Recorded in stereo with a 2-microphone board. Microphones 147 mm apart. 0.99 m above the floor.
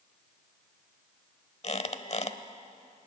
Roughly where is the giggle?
I don't hear a giggle.